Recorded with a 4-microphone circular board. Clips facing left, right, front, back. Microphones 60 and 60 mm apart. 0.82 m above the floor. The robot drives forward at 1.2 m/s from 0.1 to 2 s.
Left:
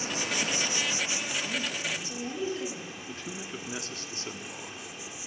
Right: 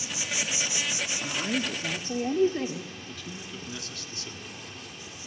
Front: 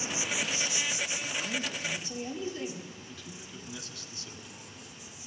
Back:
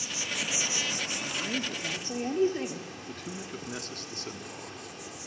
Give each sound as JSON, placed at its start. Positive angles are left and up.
{"t": 0.0, "sound": "an insect", "azimuth_deg": 55, "distance_m": 0.8}
{"t": 1.2, "sound": "a woman speaking", "azimuth_deg": -110, "distance_m": 2.0}
{"t": 3.1, "sound": "a man speaking", "azimuth_deg": 145, "distance_m": 1.6}